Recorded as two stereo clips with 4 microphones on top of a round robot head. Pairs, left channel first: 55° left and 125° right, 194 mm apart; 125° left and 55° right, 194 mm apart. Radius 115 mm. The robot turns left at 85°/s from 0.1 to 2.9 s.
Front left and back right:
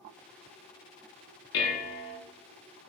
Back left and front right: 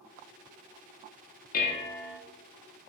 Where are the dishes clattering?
80° left, 0.8 m; by 2.2 s 25° left, 0.8 m.